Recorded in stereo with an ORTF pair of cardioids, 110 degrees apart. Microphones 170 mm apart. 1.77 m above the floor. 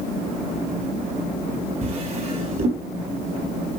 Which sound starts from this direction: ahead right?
A drawer, at 1.8 s.